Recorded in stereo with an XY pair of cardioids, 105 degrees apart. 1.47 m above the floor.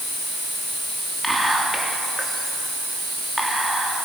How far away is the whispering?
About 2.5 m.